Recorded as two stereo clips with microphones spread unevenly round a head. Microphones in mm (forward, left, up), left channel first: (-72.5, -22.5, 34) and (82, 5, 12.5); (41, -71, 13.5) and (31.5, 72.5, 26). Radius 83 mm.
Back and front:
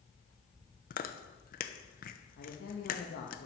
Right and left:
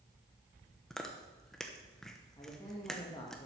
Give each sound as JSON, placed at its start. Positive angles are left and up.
{"t": 0.9, "sound": "chewing", "azimuth_deg": -170, "distance_m": 1.0}
{"t": 2.4, "sound": "a man speaking", "azimuth_deg": -155, "distance_m": 1.5}